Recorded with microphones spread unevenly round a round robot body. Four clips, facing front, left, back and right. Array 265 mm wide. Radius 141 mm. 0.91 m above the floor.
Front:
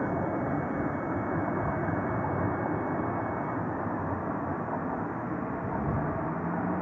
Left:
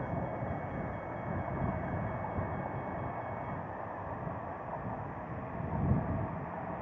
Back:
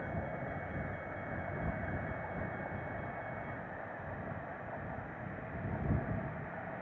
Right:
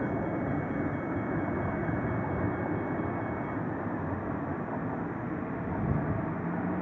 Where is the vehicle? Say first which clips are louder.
Right 6 dB, front 11 dB; 45° right.